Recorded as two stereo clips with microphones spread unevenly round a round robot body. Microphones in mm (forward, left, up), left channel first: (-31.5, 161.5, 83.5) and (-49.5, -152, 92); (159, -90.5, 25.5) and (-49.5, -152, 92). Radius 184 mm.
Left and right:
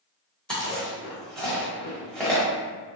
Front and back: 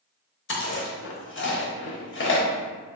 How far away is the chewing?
About 0.9 m.